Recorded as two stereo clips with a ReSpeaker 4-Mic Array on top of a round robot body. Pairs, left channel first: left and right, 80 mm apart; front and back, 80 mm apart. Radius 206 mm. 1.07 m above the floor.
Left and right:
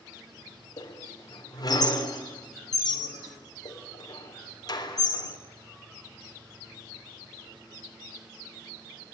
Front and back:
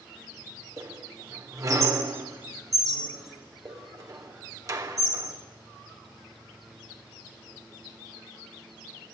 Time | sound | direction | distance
0.8 | a squeak | 130° left | 3.5 m